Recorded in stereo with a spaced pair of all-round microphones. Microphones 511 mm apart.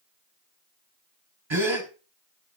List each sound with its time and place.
1.5 s a gasp: 60° right (ahead or behind), 2.5 m